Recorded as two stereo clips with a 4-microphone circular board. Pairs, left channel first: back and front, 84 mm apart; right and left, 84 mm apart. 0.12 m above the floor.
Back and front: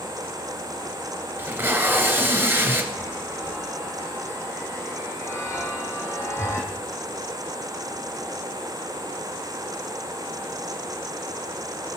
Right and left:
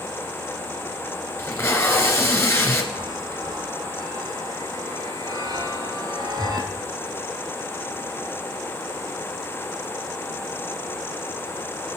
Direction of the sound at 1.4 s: 45° right.